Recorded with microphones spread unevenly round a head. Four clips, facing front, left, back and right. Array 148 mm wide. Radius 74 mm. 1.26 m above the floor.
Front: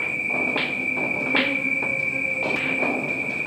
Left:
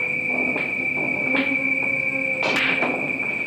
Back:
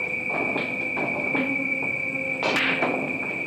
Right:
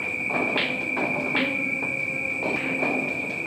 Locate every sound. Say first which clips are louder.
0.0 s an insect: left 1 dB, front 1 dB; 90° left, 1.3 m